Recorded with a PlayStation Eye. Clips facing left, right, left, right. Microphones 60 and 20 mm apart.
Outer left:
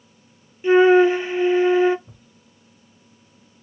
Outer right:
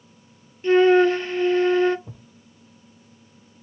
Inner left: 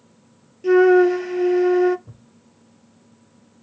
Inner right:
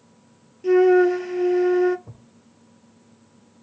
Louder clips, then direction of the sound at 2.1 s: Outer right 6 dB, inner right 1 dB; 75° right (ahead or behind).